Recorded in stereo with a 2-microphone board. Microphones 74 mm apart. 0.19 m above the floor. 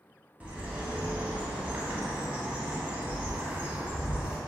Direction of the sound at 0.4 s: 20° right (ahead or behind).